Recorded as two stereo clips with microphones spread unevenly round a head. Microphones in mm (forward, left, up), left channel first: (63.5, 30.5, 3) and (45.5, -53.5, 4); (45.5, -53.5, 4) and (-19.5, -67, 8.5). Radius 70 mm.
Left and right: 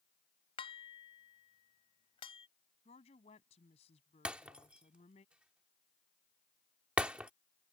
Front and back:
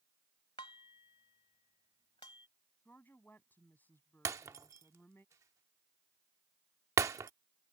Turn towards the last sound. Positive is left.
turn(degrees=-175)